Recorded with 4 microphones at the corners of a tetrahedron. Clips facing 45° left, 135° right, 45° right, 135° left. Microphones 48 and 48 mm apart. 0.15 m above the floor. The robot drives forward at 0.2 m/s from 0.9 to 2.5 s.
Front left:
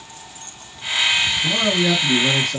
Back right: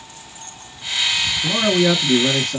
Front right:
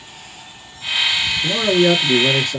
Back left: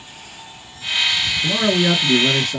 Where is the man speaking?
170° right, 1.5 m; by 2.6 s 175° right, 1.6 m.